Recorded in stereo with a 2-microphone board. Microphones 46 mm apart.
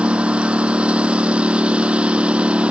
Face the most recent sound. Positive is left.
turn(degrees=-25)  # may be behind; listen again after turning